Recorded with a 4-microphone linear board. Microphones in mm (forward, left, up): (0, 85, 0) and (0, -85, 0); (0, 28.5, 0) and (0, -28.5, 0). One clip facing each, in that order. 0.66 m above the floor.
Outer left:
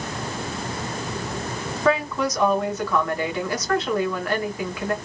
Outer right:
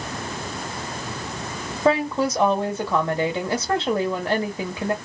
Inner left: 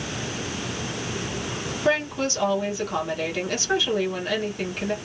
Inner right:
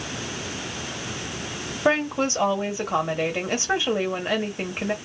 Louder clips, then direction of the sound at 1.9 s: Outer right 2 dB, inner right 2 dB; 30° right (ahead or behind).